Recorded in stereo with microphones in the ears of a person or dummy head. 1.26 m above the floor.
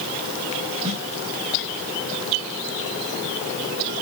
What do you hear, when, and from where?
0.8 s a snare drum: 35° right (ahead or behind), 5.5 m